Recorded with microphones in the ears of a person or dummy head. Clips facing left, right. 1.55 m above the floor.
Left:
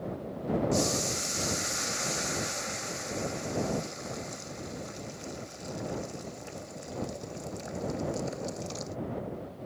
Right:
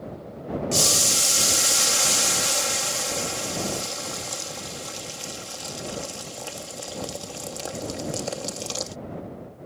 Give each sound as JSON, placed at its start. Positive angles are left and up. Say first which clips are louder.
{"t": 0.7, "sound": "boiling", "louder": "right 1 dB", "side_deg": -85}